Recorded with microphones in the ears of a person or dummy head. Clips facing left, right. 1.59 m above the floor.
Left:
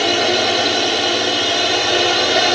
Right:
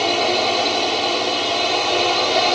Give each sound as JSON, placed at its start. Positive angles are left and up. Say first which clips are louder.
{"t": 0.0, "sound": "a drone", "louder": "left 2 dB", "side_deg": 15}